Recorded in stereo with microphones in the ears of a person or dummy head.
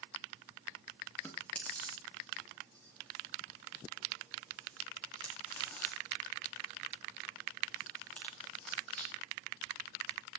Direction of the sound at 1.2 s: 5° left (ahead or behind).